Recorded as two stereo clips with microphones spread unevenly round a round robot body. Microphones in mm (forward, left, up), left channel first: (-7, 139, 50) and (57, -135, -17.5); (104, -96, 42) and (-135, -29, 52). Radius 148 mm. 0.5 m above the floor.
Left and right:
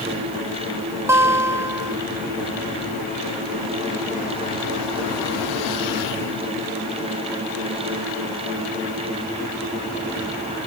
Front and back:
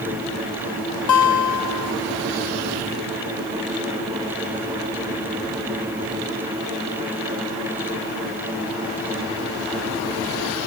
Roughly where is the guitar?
Ahead.